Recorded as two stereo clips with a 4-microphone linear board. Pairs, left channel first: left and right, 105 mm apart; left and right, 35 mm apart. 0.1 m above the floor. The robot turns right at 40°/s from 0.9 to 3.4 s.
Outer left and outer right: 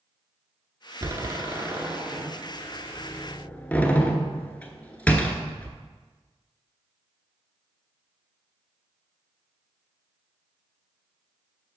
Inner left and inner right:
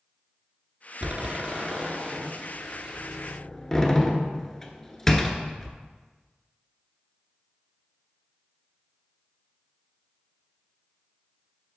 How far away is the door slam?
About 0.9 m.